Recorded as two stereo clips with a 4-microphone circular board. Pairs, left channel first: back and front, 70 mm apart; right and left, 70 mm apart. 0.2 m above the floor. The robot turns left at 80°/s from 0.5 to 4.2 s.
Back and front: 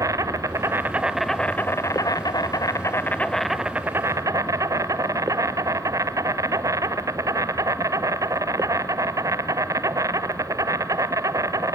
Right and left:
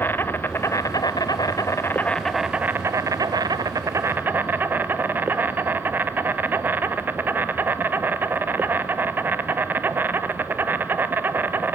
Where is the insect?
30° right, 0.9 m; by 11.8 s 30° left, 0.9 m.